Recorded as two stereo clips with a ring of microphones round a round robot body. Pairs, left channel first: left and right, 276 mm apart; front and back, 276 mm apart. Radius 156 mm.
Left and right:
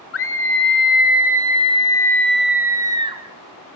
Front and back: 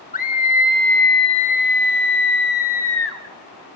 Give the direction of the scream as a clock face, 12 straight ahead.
10 o'clock.